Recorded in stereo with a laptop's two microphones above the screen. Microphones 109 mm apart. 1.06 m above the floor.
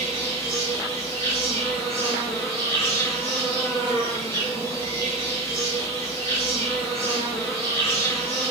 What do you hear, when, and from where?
0.0 s an insect: 25° left (ahead or behind), 1.4 m